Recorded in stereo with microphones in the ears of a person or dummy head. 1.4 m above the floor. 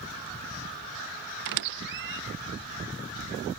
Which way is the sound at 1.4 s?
60° right (ahead or behind).